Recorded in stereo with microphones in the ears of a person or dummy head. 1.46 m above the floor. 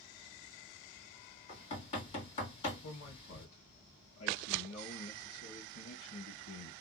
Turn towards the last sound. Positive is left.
turn(degrees=80)